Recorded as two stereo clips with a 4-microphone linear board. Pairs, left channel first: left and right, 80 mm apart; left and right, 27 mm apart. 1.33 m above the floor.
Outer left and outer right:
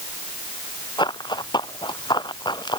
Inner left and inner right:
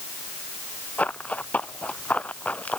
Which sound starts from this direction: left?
Running footsteps, at 1.0 s.